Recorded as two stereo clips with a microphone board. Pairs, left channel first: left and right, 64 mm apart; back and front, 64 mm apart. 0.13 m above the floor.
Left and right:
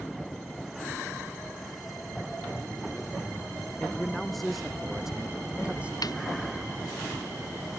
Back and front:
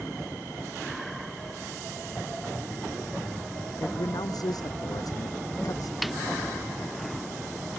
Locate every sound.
3.8 s a man speaking: 175° left; by 5.9 s 160° right
6.0 s a snare drum: 90° left